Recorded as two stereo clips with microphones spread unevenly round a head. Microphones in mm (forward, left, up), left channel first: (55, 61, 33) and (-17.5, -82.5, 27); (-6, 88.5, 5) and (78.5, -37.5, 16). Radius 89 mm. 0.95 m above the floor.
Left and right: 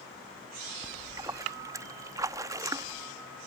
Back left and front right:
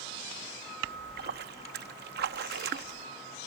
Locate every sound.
0.8 s a splash: 45° right